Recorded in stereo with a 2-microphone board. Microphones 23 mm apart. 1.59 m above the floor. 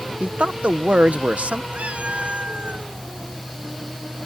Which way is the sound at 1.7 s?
75° right (ahead or behind).